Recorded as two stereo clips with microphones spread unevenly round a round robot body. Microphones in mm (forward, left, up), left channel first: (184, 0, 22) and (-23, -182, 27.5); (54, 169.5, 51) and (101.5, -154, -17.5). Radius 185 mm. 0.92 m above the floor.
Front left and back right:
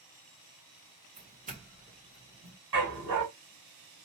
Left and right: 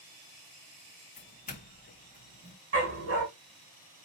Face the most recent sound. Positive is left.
turn(degrees=-140)